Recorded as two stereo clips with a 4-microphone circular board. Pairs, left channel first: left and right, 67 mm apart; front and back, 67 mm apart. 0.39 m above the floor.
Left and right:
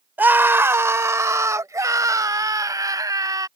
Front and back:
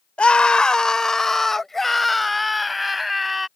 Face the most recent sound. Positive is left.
turn(degrees=-95)